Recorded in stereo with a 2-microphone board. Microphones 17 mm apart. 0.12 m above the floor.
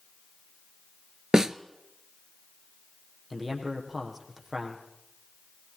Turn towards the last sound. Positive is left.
turn(degrees=-10)  # may be behind; listen again after turning